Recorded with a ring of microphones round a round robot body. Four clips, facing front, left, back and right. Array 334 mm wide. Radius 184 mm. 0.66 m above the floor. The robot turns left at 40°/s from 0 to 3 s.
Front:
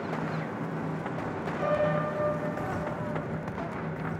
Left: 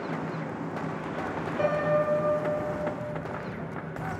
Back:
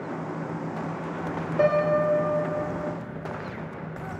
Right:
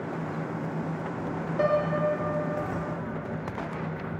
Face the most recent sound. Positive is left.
turn(degrees=130)